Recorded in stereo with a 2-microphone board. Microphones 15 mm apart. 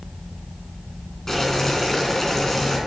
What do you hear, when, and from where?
1.3 s boiling: 25° left (ahead or behind), 3 m